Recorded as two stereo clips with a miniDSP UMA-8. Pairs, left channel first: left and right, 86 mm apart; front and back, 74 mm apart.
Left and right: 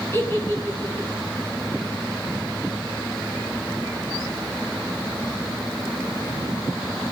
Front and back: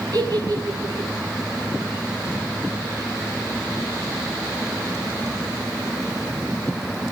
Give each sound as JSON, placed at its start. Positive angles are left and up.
{"t": 0.1, "sound": "a giggle", "azimuth_deg": 150, "distance_m": 6.5}